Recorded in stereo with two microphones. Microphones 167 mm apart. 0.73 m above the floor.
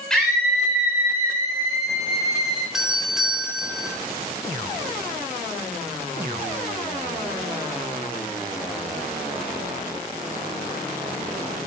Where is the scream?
5° left (ahead or behind), 3 m; by 2.6 s 25° right (ahead or behind), 4 m.